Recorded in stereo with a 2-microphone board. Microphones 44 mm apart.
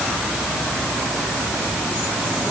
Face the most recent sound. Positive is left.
No sound to turn to.